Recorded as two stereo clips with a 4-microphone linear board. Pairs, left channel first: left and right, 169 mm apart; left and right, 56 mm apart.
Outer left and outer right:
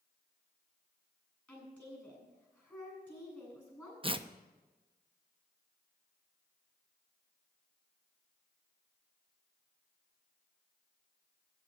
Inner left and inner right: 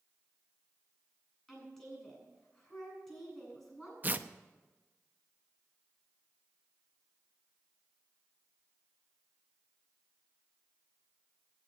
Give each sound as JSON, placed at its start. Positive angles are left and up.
{"t": 1.5, "sound": "a woman speaking", "side_deg": 10, "distance_m": 7.5}
{"t": 4.0, "sound": "tearing paper", "side_deg": -30, "distance_m": 0.6}